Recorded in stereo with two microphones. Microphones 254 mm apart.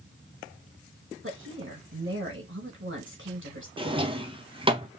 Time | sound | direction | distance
1.2 | a woman speaking | 50° right (ahead or behind) | 2.0 m
3.8 | a drawer | 20° right (ahead or behind) | 0.8 m